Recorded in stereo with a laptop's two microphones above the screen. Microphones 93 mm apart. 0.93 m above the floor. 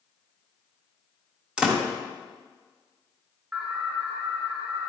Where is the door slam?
10° right (ahead or behind), 0.9 m.